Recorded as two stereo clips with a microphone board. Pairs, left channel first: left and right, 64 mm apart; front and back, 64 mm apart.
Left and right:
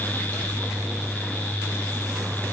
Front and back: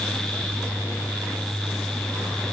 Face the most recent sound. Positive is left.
No sound to turn to.